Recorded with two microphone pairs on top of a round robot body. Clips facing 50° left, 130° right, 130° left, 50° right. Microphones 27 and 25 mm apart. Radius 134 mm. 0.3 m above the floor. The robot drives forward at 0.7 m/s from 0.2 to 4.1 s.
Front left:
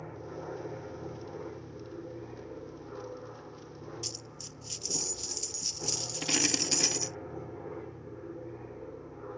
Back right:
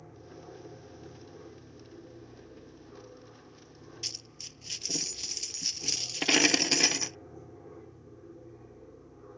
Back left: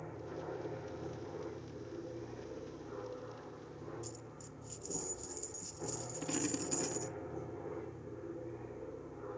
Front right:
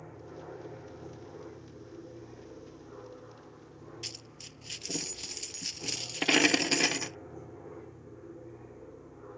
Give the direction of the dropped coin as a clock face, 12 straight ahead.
2 o'clock.